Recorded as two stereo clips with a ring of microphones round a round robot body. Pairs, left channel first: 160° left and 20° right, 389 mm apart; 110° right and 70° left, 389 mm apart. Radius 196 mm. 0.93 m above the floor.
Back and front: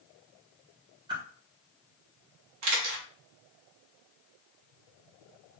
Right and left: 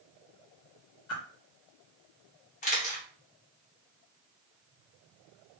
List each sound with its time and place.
1.1 s a whoosh: 95° right, 0.9 m
2.6 s a camera shutter: 50° right, 0.6 m